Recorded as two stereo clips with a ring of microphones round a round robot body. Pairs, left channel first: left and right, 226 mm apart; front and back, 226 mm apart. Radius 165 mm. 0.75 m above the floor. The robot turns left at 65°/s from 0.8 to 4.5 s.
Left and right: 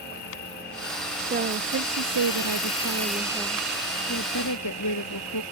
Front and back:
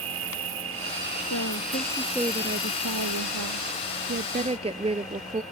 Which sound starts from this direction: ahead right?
A woman speaking, at 1.3 s.